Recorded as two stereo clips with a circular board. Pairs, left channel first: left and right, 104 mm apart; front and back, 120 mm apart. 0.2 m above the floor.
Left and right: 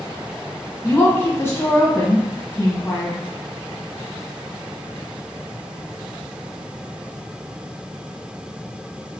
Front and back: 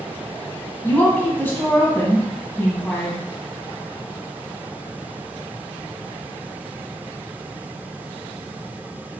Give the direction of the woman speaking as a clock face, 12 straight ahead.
10 o'clock.